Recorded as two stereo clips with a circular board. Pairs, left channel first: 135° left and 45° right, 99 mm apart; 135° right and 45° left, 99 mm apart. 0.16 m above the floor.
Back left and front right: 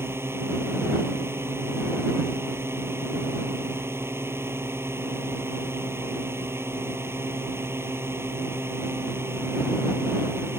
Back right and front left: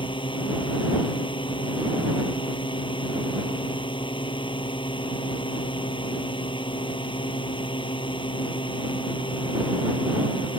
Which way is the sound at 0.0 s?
110° right.